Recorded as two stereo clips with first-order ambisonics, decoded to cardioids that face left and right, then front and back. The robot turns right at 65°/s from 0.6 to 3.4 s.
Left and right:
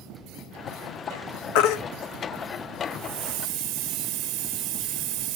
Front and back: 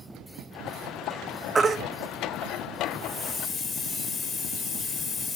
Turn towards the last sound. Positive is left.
turn(degrees=-80)